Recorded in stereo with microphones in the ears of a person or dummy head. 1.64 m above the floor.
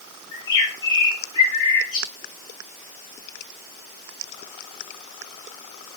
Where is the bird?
25° left (ahead or behind), 1.6 m.